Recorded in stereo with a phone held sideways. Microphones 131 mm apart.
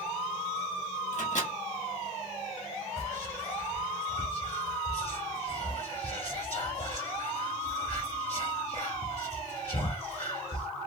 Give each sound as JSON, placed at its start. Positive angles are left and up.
{"t": 1.1, "sound": "a microwave", "side_deg": 65, "distance_m": 1.1}
{"t": 3.0, "sound": "whispering", "side_deg": 40, "distance_m": 0.9}